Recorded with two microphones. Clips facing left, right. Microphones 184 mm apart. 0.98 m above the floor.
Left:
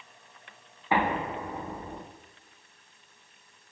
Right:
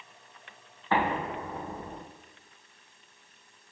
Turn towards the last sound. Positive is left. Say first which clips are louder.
# left 1 dB
turn(degrees=15)  # may be behind; listen again after turning